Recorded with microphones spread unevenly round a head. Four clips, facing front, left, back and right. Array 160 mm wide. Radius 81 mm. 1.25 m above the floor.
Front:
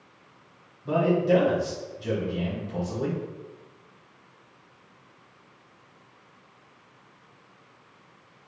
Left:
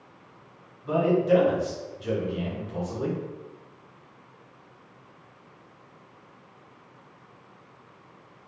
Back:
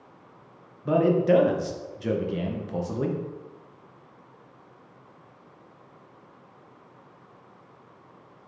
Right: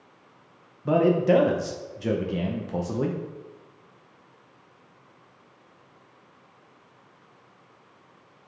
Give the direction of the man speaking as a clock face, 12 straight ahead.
4 o'clock.